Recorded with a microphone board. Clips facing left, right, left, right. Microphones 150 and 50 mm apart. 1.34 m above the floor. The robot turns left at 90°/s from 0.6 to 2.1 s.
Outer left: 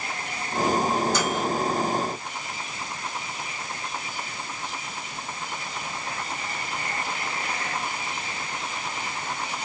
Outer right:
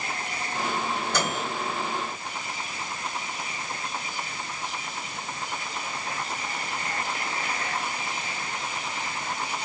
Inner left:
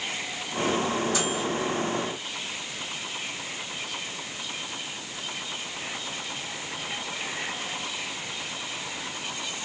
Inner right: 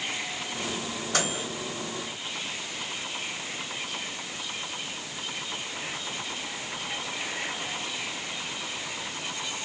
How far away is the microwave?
About 2.5 m.